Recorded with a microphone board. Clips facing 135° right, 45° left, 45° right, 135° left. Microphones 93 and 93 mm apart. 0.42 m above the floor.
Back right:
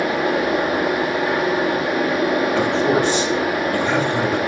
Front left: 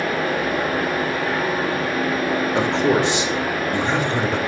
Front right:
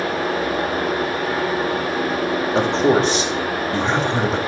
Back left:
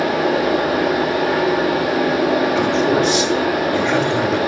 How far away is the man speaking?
About 1.7 m.